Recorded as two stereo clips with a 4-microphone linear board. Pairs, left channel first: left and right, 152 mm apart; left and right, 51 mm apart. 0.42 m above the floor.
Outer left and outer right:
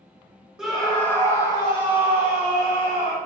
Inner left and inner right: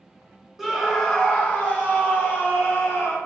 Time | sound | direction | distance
0.6 | a scream | 5° right (ahead or behind) | 1.0 m